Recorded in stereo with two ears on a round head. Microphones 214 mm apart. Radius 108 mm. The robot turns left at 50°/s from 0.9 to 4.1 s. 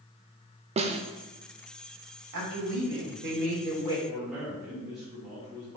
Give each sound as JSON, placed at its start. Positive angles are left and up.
{"t": 0.8, "sound": "a snare drum", "side_deg": -25, "distance_m": 0.8}
{"t": 2.3, "sound": "a woman speaking", "azimuth_deg": -85, "distance_m": 3.0}
{"t": 4.1, "sound": "a man speaking", "side_deg": -5, "distance_m": 2.5}